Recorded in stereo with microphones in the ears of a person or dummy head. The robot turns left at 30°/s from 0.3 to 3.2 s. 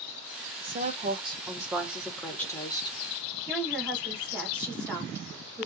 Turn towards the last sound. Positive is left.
turn(degrees=5)  # may be behind; listen again after turning